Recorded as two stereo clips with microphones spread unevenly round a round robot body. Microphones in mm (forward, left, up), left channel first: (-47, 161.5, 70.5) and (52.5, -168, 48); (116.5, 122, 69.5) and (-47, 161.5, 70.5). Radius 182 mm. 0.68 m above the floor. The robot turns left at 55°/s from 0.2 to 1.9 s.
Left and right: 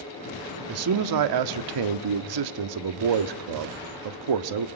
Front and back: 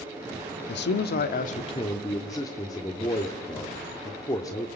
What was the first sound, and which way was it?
A man speaking, 20° right.